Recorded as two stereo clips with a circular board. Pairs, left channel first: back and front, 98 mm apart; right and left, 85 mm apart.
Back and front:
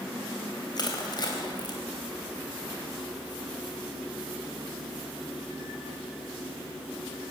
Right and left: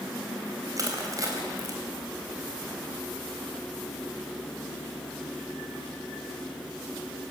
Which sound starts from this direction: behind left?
Crushing, at 0.8 s.